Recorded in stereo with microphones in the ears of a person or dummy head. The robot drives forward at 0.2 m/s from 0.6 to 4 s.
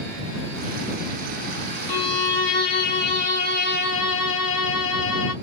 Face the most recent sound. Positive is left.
turn(degrees=55)  # may be behind; listen again after turning